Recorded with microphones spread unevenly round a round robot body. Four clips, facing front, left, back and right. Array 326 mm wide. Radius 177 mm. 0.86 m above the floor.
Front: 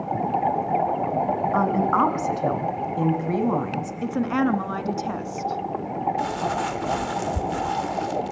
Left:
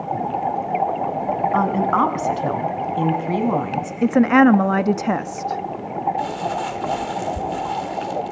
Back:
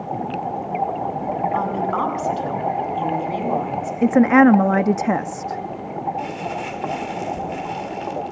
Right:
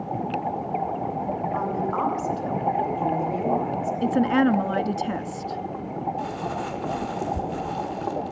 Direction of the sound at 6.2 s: Straight ahead.